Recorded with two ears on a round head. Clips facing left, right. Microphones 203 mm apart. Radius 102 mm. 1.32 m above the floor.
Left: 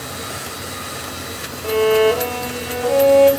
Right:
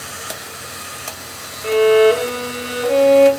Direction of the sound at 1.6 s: 25° right (ahead or behind).